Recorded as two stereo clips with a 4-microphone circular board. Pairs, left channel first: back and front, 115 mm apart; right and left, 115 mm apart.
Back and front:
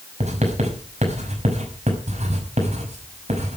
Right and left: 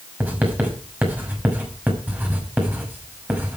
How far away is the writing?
About 5.5 m.